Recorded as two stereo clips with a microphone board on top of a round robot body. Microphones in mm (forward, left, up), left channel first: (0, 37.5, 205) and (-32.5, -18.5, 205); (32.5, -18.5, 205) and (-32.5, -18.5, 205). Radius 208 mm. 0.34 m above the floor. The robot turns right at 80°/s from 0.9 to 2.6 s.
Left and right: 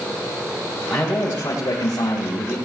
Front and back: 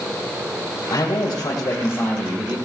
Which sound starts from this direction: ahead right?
A man speaking, at 0.9 s.